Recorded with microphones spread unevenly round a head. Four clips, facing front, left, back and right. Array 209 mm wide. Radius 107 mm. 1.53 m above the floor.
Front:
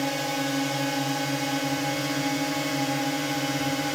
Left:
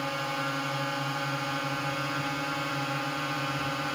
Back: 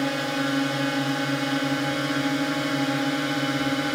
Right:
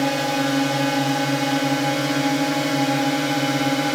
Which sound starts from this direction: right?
A drone, at 0.0 s.